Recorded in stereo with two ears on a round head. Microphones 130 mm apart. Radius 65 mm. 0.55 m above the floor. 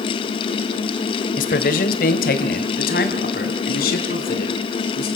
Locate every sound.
1.4 s a man speaking: 55° left (ahead or behind), 1.7 m; by 5.1 s 65° left (ahead or behind), 5.5 m